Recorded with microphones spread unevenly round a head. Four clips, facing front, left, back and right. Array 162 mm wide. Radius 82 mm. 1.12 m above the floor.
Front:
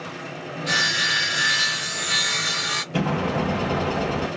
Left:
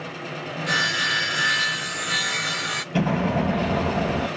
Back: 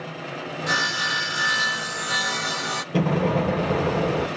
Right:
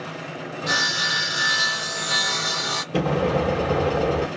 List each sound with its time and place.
0.7 s sawing: 145° right, 0.6 m
2.9 s an explosion: 120° right, 4.5 m